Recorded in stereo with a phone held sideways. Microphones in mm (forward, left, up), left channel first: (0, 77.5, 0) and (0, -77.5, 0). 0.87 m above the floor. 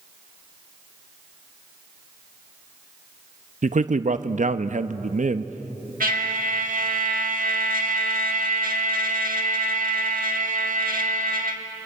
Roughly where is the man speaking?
Right.